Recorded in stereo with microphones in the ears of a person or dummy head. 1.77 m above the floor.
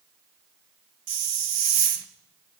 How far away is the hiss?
About 0.9 m.